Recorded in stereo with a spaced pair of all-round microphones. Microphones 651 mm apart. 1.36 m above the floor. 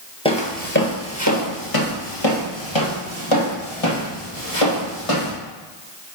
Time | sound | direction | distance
0.2 | footsteps | 10° left (ahead or behind) | 1.5 m